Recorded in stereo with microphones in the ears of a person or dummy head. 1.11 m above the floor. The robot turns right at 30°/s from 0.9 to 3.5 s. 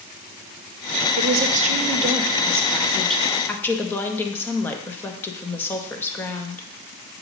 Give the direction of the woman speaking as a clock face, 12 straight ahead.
2 o'clock.